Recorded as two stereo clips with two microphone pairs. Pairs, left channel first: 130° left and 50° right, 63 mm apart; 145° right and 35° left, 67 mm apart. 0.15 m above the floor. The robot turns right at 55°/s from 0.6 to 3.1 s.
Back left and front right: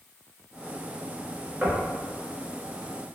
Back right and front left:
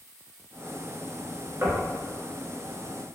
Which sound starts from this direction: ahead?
Knocking, at 1.6 s.